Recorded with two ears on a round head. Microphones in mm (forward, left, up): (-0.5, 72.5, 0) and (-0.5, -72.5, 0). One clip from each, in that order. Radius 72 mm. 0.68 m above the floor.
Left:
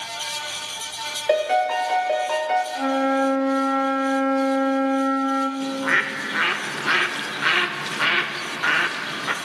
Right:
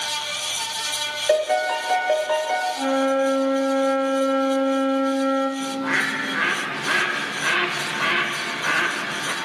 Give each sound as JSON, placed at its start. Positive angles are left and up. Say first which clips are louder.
{"t": 1.3, "sound": "a piano", "louder": "left 1 dB", "side_deg": 5, "distance_m": 0.5}
{"t": 2.8, "sound": "a flute", "louder": "even", "side_deg": 25, "distance_m": 0.6}
{"t": 5.6, "sound": "a bird", "louder": "left 1 dB", "side_deg": 35, "distance_m": 0.5}